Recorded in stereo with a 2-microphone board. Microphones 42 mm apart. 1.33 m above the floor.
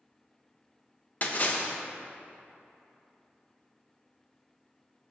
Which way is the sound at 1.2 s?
40° left (ahead or behind).